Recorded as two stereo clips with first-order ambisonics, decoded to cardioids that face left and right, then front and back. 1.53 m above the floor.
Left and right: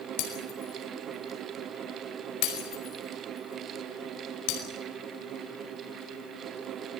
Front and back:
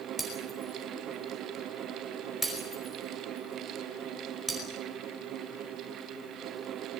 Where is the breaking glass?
90° left, 5 m.